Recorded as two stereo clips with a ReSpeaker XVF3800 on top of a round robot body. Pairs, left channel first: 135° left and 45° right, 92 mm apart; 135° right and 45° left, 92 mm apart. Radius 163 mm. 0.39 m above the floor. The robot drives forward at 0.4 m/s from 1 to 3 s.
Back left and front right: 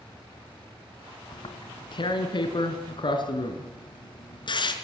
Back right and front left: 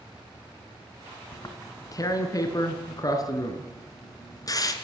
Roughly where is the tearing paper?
Behind.